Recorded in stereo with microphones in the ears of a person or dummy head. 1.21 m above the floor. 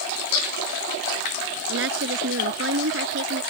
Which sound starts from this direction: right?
A woman speaking, at 1.7 s.